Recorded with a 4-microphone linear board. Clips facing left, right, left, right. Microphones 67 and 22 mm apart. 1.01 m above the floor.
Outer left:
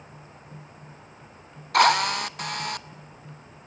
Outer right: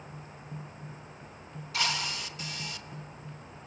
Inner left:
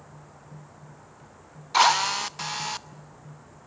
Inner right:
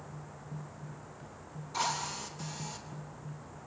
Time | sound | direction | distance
1.7 | a drill | 60° left (ahead or behind) | 0.7 m